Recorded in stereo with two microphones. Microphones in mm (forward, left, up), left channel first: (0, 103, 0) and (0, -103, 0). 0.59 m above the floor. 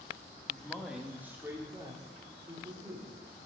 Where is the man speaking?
5° left (ahead or behind), 1.3 m; by 3.1 s 30° right (ahead or behind), 2.5 m.